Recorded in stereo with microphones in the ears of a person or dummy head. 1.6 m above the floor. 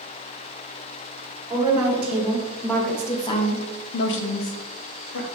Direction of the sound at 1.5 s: 15° right (ahead or behind).